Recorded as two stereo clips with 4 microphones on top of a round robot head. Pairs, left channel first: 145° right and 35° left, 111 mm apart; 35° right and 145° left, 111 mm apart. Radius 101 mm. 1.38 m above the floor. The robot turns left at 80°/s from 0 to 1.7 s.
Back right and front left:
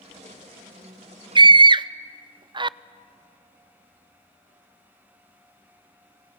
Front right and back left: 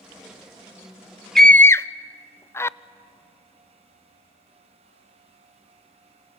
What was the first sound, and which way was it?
A scream, 50° left.